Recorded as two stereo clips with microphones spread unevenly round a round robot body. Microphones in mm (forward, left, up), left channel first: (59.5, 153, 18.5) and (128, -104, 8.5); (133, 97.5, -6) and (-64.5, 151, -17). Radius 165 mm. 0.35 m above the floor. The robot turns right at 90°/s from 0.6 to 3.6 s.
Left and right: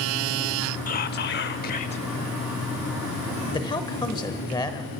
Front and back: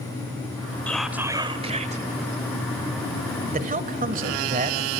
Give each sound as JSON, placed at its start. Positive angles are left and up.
{"t": 0.9, "sound": "whispering", "azimuth_deg": 65, "distance_m": 1.1}
{"t": 3.5, "sound": "a man speaking", "azimuth_deg": 170, "distance_m": 1.1}